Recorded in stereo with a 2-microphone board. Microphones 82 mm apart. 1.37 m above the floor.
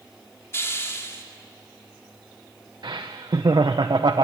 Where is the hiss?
35° left (ahead or behind), 2.5 m.